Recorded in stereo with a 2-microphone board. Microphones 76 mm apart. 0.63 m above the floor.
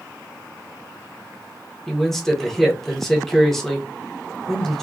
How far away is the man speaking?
About 1.4 m.